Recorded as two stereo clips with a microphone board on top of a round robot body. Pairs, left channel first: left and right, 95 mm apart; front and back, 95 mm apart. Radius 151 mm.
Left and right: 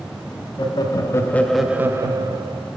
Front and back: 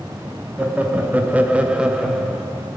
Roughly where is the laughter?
Left.